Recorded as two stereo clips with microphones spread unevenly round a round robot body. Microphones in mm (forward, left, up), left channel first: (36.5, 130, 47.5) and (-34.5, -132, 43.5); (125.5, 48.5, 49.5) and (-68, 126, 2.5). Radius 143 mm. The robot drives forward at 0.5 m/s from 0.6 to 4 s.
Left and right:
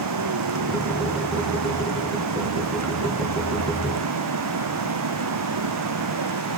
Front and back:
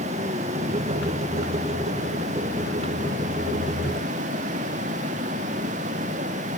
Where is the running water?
135° right.